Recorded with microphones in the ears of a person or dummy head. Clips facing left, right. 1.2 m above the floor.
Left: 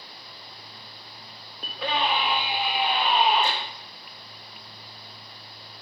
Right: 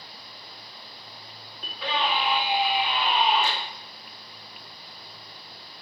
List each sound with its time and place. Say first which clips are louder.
1.6 s a scream: left 1 dB; 45° left (ahead or behind), 1.5 m